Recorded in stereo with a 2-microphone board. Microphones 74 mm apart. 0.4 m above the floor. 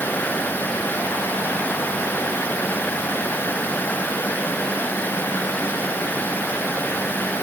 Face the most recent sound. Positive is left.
No sound to turn to.